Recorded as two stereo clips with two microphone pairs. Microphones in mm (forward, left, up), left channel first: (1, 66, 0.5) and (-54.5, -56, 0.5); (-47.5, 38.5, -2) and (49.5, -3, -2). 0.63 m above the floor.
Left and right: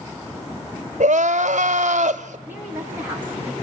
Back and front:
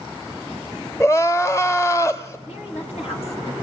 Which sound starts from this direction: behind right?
Crying, at 1.0 s.